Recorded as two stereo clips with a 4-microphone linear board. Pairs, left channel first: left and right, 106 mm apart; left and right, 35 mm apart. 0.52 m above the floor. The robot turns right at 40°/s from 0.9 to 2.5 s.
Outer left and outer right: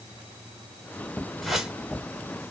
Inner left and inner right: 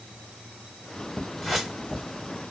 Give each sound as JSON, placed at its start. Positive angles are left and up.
{"t": 1.4, "sound": "a whoosh", "side_deg": 0, "distance_m": 1.1}